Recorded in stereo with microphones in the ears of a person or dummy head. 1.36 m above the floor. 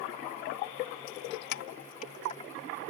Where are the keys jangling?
65° left (ahead or behind); by 2.5 s 35° left (ahead or behind).